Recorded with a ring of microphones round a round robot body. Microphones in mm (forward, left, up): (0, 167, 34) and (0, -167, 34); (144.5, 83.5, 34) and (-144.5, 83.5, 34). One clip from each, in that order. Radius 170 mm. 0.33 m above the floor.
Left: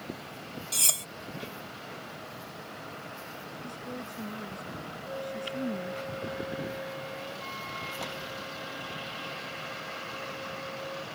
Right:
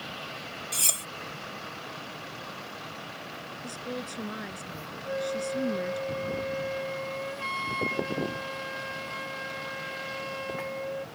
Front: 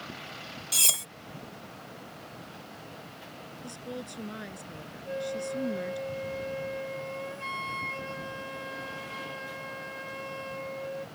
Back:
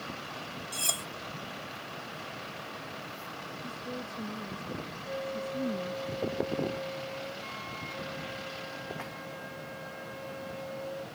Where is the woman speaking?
45° right.